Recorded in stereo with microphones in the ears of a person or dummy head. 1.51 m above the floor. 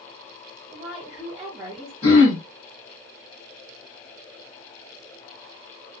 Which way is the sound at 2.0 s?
25° left (ahead or behind).